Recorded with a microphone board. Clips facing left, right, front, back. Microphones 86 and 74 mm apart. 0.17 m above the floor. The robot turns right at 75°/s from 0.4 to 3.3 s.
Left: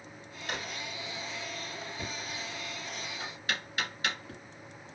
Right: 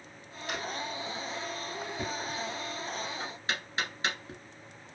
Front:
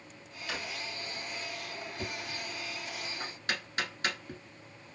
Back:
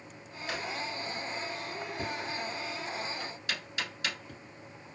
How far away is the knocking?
About 1.1 m.